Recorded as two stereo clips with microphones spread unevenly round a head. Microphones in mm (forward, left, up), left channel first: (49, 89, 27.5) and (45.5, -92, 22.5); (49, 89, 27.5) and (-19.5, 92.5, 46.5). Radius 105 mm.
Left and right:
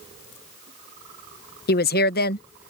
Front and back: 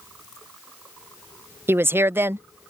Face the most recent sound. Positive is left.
turn(degrees=110)